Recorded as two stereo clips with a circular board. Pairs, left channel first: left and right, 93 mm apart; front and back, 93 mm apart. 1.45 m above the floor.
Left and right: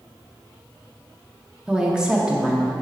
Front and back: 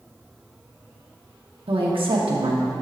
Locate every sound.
1.7 s a woman speaking: 170° right, 1.2 m